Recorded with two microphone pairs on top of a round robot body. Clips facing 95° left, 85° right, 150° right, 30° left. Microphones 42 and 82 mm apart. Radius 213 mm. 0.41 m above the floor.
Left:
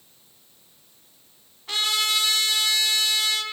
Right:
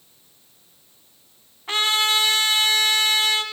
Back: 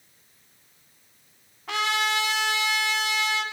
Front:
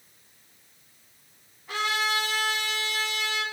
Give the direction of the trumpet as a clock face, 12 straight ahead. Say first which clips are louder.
Right 4 dB, back 2 dB; 5 o'clock.